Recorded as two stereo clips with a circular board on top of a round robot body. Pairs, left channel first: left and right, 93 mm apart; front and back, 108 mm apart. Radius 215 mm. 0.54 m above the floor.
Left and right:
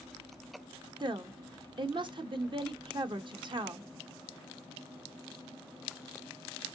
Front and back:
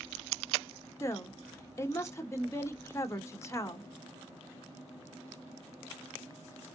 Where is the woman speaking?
60° right, 1.1 m.